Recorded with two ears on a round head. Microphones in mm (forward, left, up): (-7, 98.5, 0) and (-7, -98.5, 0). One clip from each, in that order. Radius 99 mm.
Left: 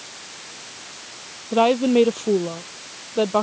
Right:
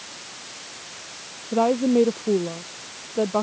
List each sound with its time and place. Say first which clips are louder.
1.5 s a woman speaking: left 3 dB; 70° left (ahead or behind); by 3.4 s 75° left (ahead or behind)